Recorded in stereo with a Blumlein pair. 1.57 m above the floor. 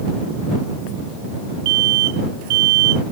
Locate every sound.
1.6 s an alarm: 50° right